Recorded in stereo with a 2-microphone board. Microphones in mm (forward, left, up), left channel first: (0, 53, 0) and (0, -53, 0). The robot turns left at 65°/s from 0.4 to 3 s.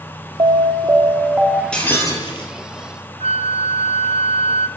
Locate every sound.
0.4 s an alarm: 105° right, 1.3 m; by 1.6 s 175° left, 1.3 m
1.7 s breaking glass: 175° left, 5 m; by 2.5 s 120° left, 5 m
3.2 s a flute: 70° right (ahead or behind), 0.5 m